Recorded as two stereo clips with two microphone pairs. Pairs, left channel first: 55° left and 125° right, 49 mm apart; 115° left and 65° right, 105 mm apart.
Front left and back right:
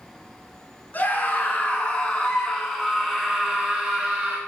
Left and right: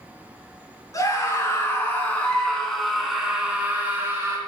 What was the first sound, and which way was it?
A scream, 80° left.